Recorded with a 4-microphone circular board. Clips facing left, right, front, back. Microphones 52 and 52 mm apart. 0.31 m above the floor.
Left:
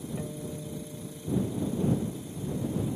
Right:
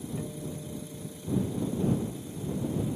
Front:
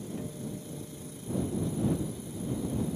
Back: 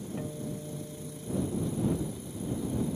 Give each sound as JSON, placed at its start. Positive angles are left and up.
{"t": 0.2, "sound": "a guitar", "azimuth_deg": 155}